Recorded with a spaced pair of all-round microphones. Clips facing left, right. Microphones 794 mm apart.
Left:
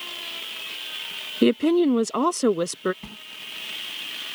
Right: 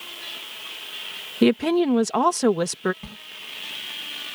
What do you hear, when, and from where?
1.4 s a woman speaking: 35° right (ahead or behind)
3.0 s a sliding door: 20° right (ahead or behind)